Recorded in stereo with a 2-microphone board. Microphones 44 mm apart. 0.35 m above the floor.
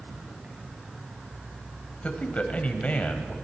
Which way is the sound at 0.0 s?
30° right (ahead or behind).